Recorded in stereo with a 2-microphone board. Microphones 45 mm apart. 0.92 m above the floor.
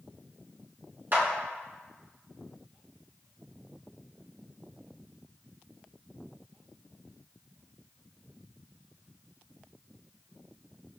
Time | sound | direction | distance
1.1 | a clap | 45° right (ahead or behind) | 0.9 m